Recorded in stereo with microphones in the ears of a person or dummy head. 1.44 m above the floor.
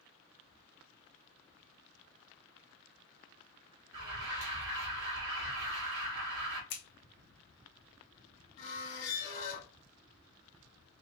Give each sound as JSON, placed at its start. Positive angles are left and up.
{"t": 3.9, "sound": "an alarm", "side_deg": -85, "distance_m": 2.5}
{"t": 6.7, "sound": "scissors", "side_deg": 60, "distance_m": 1.1}
{"t": 8.6, "sound": "a squeak", "side_deg": 50, "distance_m": 1.8}